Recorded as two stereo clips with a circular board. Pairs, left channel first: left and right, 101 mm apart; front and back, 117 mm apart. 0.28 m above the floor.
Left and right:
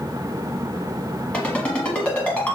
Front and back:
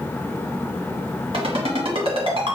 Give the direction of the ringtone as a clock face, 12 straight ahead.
7 o'clock.